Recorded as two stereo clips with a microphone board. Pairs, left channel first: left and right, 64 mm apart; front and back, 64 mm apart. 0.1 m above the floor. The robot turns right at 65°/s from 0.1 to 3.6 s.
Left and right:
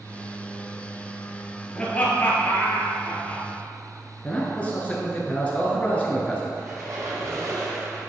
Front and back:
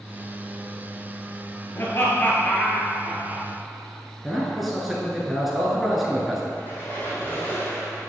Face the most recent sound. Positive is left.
turn(degrees=-55)